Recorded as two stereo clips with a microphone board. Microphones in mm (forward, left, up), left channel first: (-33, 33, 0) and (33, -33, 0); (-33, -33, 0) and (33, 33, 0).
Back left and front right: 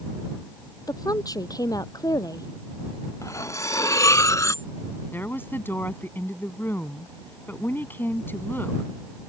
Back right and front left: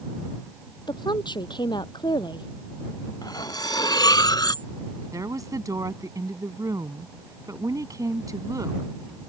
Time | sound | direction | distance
0.9 | a woman speaking | 175° right | ?
3.2 | cutlery clinking | 175° right | ?
5.1 | a woman speaking | 75° left | ?